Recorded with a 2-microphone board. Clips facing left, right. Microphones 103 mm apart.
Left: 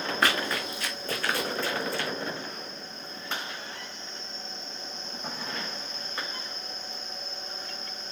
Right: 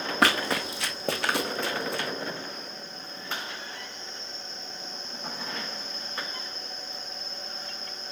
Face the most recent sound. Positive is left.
turn(degrees=-60)  # may be behind; listen again after turning